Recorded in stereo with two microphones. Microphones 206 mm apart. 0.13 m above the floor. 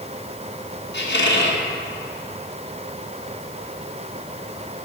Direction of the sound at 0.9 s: 65° left (ahead or behind).